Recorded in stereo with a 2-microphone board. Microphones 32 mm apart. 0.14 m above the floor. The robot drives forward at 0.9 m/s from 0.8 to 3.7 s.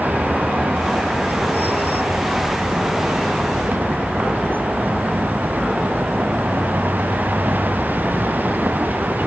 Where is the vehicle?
80° right; by 9.3 s 85° right.